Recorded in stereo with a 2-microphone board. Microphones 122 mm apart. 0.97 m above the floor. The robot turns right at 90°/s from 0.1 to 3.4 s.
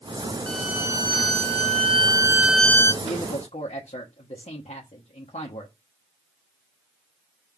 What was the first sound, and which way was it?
A violin, 170° left.